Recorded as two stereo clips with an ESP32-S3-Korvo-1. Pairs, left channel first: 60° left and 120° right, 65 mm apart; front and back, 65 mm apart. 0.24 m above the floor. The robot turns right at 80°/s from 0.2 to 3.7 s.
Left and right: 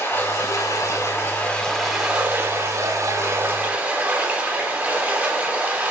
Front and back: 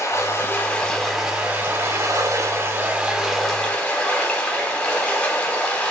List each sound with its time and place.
0.0 s running water: 15° left, 0.8 m; by 5.9 s 65° right, 0.8 m